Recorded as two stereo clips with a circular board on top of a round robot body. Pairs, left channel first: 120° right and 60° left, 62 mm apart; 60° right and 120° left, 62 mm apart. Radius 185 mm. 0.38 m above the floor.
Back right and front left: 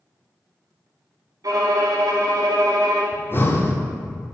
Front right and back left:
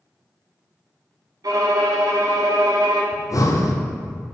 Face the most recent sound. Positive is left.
turn(degrees=-70)